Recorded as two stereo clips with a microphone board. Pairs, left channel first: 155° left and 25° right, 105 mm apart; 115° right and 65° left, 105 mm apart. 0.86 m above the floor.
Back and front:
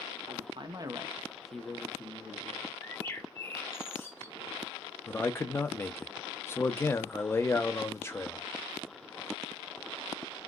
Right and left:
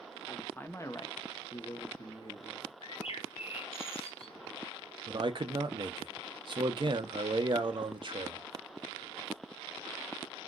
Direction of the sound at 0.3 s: 30° right.